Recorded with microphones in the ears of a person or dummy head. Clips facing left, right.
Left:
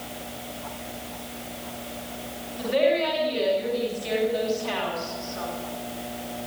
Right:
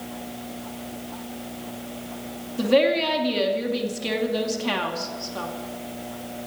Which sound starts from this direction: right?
A woman speaking, at 2.6 s.